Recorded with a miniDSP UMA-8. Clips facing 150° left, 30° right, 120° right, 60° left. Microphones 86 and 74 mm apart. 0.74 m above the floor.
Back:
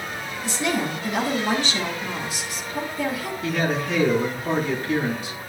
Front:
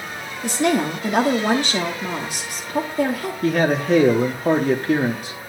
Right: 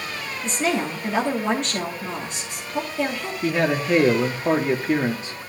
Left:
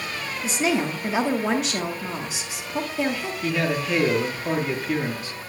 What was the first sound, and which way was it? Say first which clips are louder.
A woman speaking: front 6 dB, even; 25° right.